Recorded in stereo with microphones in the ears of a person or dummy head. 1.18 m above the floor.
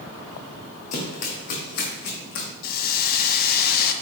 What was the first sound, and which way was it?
Running footsteps, 45° left (ahead or behind).